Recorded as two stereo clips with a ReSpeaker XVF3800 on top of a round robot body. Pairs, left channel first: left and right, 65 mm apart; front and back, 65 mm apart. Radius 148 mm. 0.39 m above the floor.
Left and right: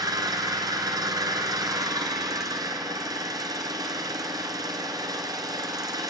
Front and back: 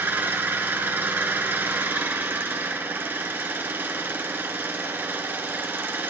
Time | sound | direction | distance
0.0 | an engine running | 120° right | 1.7 m